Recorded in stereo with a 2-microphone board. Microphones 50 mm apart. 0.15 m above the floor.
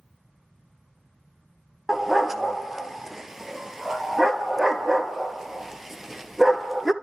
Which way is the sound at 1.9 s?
10° right (ahead or behind).